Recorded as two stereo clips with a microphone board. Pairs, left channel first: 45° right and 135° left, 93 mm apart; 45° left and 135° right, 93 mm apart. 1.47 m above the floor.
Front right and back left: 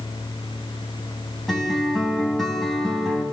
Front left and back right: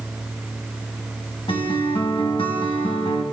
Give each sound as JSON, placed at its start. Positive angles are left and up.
{"t": 1.5, "sound": "a guitar", "azimuth_deg": 45, "distance_m": 4.0}